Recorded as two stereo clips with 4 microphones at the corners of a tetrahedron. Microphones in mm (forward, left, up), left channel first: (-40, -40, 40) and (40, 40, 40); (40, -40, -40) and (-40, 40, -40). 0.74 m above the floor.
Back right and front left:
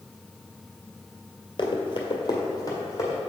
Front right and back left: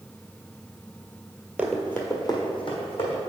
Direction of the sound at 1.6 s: 150° right.